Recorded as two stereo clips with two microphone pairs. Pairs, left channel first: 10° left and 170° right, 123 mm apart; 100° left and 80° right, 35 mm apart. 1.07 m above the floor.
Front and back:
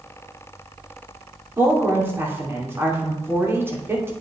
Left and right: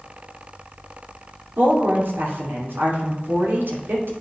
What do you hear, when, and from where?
1.6 s a woman speaking: 95° right, 2.5 m